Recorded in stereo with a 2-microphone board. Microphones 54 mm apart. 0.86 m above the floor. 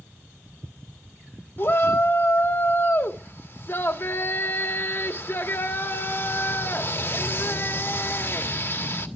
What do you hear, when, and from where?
1.6 s a shout: 45° left (ahead or behind), 1.5 m